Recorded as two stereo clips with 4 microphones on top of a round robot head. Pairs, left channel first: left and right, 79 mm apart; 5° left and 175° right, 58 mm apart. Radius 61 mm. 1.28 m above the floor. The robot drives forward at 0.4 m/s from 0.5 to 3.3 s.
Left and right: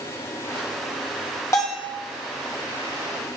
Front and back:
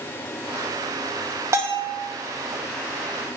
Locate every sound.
1.5 s a bell: 150° left, 1.0 m; by 1.9 s 155° left, 1.2 m